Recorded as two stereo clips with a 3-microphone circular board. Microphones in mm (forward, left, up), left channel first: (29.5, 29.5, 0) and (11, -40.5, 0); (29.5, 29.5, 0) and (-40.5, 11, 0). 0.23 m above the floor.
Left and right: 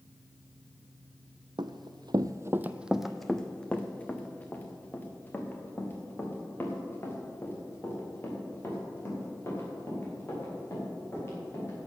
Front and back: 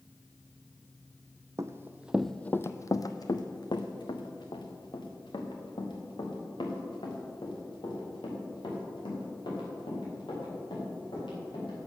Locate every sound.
1.6 s running footsteps: 115° right, 0.6 m; by 11.9 s 15° left, 6.5 m